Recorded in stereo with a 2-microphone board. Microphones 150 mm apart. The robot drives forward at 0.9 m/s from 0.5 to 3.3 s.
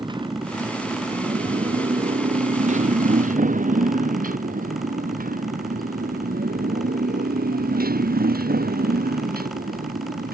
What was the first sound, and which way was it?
A motorcycle, 30° right (ahead or behind).